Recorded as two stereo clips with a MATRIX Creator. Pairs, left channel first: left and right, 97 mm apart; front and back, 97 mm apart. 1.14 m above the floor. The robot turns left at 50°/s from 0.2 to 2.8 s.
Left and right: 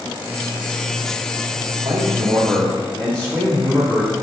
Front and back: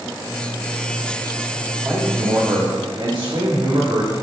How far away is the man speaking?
About 2 m.